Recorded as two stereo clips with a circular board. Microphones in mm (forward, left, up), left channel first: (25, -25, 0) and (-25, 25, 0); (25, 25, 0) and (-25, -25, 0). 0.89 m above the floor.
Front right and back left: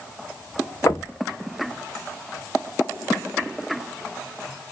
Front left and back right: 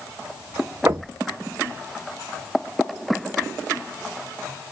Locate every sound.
0.9 s knocking: 85° right, 0.8 m